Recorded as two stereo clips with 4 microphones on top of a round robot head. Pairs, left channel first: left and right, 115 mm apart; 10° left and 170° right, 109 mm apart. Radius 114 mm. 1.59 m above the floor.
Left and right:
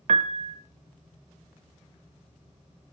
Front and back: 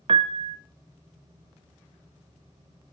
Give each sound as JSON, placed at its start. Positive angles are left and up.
{"t": 0.1, "sound": "a piano", "azimuth_deg": -125, "distance_m": 0.5}